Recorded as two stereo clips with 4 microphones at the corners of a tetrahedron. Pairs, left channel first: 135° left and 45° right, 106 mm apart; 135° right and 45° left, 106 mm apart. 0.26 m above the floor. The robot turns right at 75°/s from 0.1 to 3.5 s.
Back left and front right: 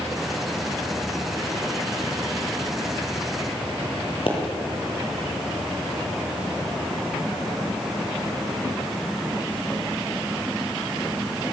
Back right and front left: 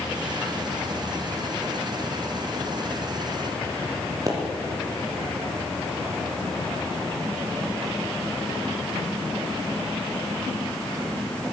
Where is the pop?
100° left, 3.5 m.